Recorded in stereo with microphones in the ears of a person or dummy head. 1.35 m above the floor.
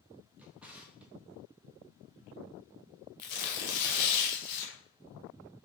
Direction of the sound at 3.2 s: 55° left (ahead or behind).